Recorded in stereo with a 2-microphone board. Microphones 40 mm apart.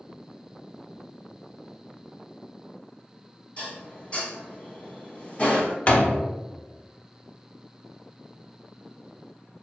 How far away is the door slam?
About 0.6 m.